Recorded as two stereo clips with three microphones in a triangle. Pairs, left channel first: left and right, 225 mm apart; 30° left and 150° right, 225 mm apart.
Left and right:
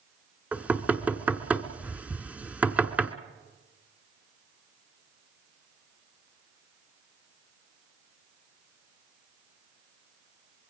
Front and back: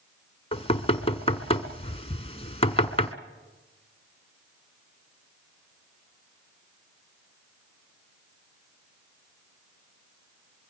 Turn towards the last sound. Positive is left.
turn(degrees=-10)